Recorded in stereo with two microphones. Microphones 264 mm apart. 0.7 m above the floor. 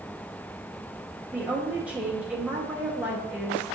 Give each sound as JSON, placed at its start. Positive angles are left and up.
{"t": 1.3, "sound": "a woman speaking", "side_deg": -5, "distance_m": 0.9}